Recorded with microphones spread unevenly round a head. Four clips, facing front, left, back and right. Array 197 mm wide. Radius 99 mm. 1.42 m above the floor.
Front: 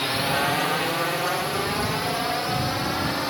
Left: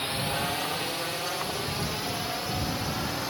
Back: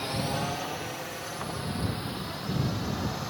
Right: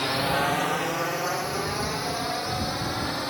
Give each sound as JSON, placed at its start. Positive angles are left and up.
{"t": 0.0, "sound": "a drone", "azimuth_deg": -55}